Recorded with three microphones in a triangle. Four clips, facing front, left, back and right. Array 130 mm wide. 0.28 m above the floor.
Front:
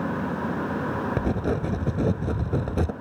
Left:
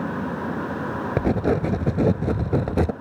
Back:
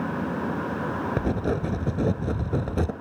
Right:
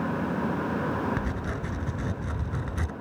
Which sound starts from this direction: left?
Writing, at 1.2 s.